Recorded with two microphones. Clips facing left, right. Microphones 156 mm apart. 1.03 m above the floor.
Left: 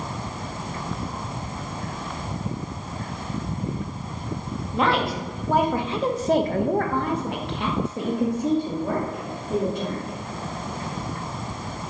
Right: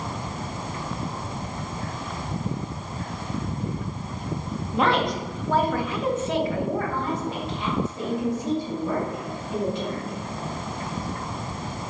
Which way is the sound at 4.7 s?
Centre (ahead or behind).